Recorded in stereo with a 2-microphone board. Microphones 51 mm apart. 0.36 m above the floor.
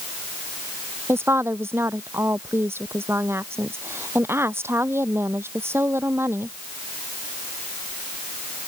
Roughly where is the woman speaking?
Right.